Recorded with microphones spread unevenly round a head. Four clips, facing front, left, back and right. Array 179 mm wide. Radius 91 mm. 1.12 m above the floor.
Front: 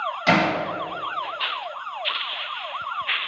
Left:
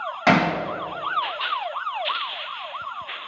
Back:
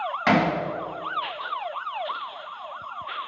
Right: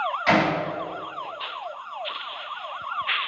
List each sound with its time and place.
0.3 s hammering: 110° left, 6 m